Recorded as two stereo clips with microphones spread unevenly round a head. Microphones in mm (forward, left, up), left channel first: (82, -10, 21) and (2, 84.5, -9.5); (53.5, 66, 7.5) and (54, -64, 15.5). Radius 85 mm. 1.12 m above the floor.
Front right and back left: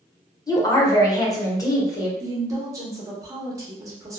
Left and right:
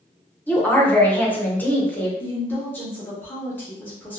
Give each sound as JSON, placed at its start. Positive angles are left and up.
{"t": 0.5, "sound": "a woman speaking", "azimuth_deg": 15, "distance_m": 1.0}
{"t": 2.2, "sound": "a woman speaking", "azimuth_deg": 155, "distance_m": 0.7}